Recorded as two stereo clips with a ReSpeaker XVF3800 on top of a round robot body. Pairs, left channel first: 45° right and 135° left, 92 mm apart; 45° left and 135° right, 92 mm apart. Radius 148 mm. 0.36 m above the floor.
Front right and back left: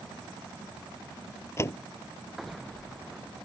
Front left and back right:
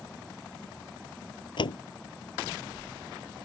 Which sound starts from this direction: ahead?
A door slam, at 1.6 s.